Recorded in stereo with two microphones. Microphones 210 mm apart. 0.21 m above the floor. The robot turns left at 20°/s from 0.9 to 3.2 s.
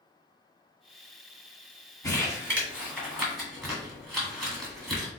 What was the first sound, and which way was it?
Crumpling, 15° left (ahead or behind).